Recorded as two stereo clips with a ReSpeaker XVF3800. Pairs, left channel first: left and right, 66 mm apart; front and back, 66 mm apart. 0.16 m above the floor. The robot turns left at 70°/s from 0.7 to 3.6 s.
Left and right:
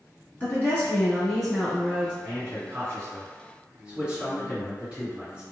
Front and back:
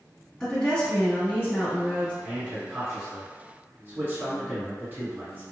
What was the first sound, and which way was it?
A woman speaking, 65° left.